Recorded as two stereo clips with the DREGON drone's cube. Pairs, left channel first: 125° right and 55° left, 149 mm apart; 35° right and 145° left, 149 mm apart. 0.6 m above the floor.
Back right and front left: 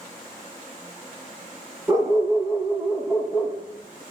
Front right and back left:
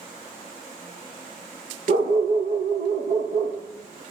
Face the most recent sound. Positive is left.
turn(degrees=145)